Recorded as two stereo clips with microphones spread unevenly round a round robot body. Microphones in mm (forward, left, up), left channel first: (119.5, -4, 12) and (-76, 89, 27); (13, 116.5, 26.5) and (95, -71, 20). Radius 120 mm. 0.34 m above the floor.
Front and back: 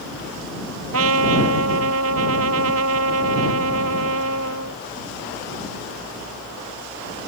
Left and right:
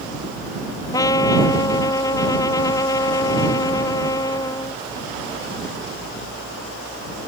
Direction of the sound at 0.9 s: 170° right.